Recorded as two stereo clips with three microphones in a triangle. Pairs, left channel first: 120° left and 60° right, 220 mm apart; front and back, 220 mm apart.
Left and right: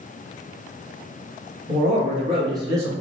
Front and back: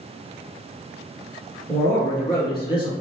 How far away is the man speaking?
About 1.8 m.